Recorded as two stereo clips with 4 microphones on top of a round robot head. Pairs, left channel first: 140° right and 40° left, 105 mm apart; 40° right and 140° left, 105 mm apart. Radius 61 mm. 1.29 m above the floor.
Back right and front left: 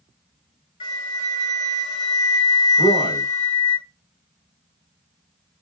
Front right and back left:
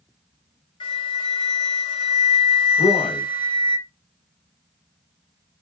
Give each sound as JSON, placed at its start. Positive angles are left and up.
{"t": 0.8, "sound": "a flute", "azimuth_deg": -90, "distance_m": 0.9}
{"t": 2.8, "sound": "a man speaking", "azimuth_deg": -90, "distance_m": 2.5}